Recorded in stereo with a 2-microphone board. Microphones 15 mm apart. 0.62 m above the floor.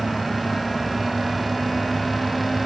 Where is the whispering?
No whispering in this recording.